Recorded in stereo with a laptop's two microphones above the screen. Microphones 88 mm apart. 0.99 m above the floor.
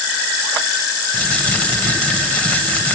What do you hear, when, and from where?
1.1 s crumpling: 15° left (ahead or behind), 1.2 m